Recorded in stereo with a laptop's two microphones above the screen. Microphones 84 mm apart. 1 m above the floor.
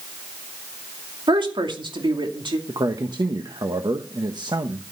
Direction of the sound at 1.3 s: 70° right (ahead or behind).